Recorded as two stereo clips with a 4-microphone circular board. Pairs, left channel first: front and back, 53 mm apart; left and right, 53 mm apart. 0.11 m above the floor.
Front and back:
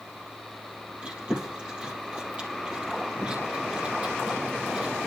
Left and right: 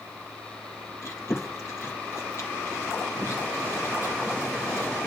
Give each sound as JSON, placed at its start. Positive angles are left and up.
{"t": 1.0, "sound": "chewing", "azimuth_deg": 115, "distance_m": 3.0}